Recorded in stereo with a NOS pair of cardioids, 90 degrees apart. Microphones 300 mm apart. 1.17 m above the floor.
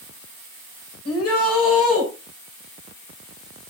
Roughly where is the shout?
Ahead left.